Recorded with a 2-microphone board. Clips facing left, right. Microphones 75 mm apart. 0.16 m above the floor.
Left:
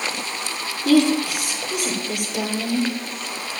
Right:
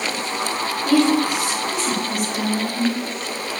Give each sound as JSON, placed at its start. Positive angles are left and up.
{"t": 0.8, "sound": "a woman speaking", "side_deg": 75, "distance_m": 5.5}